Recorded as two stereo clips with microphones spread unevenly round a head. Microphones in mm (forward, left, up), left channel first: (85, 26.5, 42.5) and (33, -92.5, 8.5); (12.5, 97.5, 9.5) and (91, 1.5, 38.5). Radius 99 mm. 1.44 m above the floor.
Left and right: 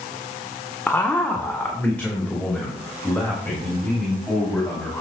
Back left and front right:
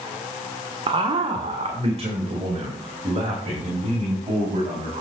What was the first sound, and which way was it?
A man speaking, 10° right.